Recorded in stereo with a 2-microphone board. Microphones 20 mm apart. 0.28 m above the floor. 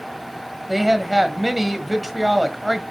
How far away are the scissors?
No scissors in this recording.